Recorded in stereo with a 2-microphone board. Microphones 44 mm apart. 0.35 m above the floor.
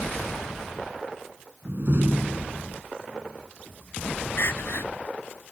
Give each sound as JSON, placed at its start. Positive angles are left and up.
{"t": 1.6, "sound": "a door slam", "side_deg": -60}
{"t": 4.4, "sound": "crying", "side_deg": 65}